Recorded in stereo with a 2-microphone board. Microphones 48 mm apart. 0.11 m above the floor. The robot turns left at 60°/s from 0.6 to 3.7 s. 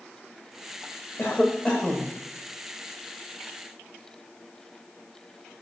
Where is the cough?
50° left, 9.5 m; by 2.1 s 5° right, 9.5 m.